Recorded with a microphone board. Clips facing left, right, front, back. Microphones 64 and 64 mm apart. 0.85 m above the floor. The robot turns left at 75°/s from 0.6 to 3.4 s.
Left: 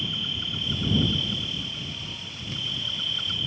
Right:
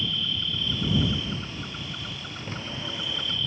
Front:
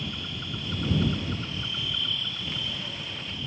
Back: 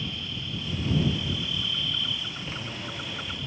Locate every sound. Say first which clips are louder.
0.0 s an insect: right 2 dB, even; 15° left; by 3.5 s 165° left